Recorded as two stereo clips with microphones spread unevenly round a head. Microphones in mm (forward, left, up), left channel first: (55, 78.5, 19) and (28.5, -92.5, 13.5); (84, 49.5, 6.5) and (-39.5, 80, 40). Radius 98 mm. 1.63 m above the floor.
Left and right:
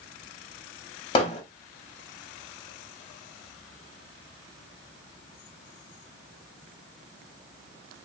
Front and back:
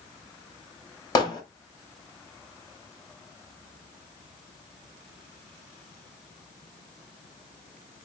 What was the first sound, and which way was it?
Hammering, 50° left.